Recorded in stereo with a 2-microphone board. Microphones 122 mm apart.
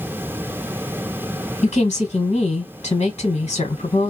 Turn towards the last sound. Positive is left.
turn(degrees=70)  # may be behind; listen again after turning